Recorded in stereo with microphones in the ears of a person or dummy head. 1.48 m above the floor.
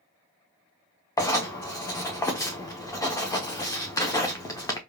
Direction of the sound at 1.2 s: 15° left (ahead or behind).